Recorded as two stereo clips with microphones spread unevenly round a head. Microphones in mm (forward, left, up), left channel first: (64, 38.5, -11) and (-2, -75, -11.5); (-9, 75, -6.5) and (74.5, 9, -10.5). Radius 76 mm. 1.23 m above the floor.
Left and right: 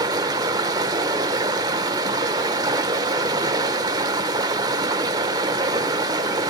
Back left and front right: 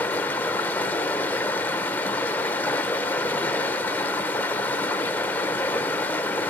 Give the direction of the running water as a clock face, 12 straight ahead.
5 o'clock.